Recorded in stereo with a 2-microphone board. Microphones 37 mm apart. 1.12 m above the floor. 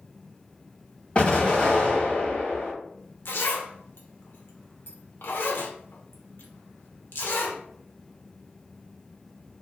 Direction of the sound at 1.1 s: 35° left (ahead or behind).